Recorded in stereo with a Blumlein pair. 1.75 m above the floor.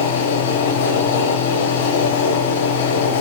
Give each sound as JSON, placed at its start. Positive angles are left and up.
{"t": 0.0, "sound": "a fan", "azimuth_deg": 50, "distance_m": 1.0}